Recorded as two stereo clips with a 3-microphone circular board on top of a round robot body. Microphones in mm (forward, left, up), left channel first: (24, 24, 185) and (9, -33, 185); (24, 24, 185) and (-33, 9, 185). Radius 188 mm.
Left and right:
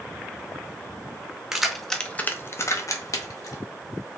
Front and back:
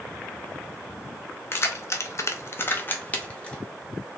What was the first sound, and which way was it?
Keys jangling, 25° right.